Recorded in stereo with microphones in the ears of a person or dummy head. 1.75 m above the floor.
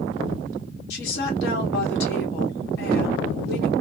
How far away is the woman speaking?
About 1.8 m.